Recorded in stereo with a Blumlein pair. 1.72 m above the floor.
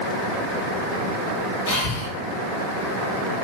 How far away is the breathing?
About 1.4 m.